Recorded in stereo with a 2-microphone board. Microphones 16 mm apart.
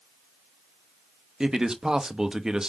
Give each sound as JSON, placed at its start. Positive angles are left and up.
{"t": 1.4, "sound": "a man speaking", "side_deg": -35, "distance_m": 0.6}